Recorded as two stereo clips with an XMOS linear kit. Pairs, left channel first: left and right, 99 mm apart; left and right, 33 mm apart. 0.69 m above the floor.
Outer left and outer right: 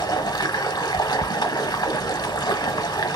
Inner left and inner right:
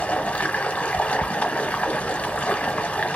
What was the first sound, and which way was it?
Running water, 45° left (ahead or behind).